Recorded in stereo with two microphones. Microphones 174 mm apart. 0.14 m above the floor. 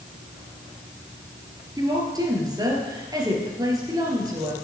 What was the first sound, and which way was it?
A woman speaking, 20° right (ahead or behind).